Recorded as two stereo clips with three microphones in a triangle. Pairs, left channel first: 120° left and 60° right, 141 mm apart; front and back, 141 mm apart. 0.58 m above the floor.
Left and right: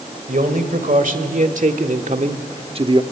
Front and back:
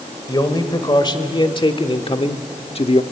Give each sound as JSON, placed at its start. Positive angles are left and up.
{"t": 0.3, "sound": "a man speaking", "azimuth_deg": -60, "distance_m": 2.0}